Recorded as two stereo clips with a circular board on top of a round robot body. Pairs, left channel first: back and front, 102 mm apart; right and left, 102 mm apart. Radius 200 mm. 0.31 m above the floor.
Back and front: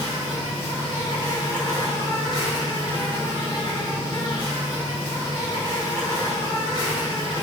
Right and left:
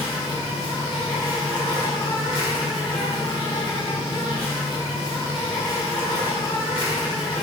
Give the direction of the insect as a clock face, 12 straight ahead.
5 o'clock.